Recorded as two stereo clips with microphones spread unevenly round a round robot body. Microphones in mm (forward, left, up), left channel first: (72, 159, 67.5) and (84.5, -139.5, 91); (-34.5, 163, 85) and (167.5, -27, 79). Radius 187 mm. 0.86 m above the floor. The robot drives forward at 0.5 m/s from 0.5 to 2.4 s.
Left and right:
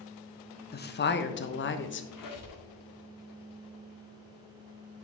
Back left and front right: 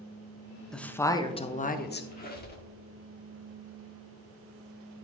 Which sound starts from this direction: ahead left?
A woman speaking, at 0.7 s.